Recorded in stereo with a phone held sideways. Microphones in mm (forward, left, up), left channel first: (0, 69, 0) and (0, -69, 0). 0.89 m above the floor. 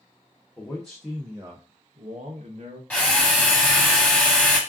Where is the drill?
10° left (ahead or behind), 1.1 m.